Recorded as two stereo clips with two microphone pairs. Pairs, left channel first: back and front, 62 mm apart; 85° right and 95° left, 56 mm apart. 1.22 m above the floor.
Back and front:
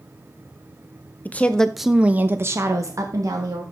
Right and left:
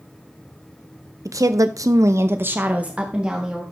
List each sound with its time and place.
1.2 s a woman speaking: 120° left, 1.0 m; by 3.6 s 15° left, 1.7 m